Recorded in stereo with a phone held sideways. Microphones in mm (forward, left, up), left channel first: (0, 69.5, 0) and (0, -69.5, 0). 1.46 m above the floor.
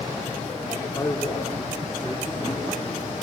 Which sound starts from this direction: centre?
A man speaking, at 0.9 s.